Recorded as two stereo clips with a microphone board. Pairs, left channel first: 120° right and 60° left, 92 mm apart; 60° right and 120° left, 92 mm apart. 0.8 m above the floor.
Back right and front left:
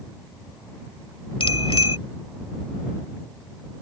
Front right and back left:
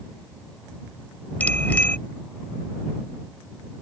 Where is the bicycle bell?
130° right.